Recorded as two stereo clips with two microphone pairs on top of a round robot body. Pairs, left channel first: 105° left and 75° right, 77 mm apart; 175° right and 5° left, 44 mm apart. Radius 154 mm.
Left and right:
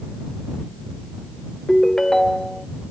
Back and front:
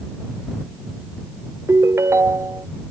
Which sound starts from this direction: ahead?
A ringtone, at 1.7 s.